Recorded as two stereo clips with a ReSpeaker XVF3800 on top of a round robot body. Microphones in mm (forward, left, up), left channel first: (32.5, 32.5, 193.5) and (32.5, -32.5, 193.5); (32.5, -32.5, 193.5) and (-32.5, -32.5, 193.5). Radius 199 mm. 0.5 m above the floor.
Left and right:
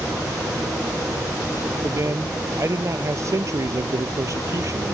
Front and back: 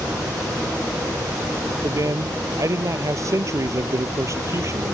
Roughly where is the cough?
I don't hear a cough.